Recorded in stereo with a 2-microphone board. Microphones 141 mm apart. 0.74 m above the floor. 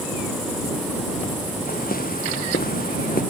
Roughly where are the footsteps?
Left.